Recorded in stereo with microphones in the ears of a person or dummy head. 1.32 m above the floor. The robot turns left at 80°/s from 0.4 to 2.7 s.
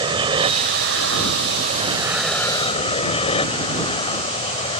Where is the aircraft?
30° right; by 4.8 s 150° left.